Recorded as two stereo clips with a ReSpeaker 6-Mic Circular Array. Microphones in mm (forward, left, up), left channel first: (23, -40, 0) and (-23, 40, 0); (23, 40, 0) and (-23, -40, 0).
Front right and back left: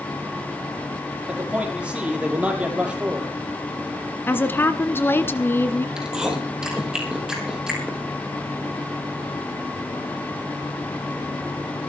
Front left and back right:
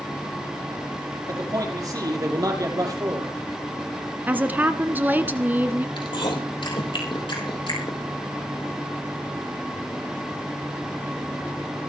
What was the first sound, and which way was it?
A man speaking, 165° right.